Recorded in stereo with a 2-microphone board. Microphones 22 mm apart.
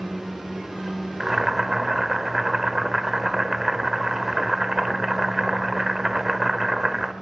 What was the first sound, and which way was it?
Boiling, 20° right (ahead or behind).